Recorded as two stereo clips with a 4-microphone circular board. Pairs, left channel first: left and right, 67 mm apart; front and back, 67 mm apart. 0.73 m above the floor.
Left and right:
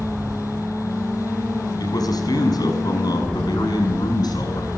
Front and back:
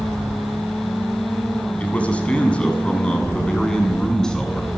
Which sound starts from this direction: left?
A man speaking, at 1.8 s.